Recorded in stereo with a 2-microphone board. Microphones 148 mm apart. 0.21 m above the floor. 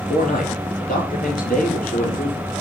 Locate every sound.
0.1 s a man speaking: 65° left (ahead or behind), 3.5 m; by 2.5 s 70° left (ahead or behind), 5 m